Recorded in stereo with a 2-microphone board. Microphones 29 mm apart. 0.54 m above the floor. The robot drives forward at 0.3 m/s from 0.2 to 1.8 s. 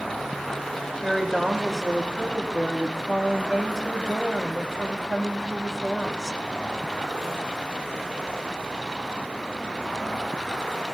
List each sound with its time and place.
1.0 s a woman speaking: 5° left (ahead or behind), 1.1 m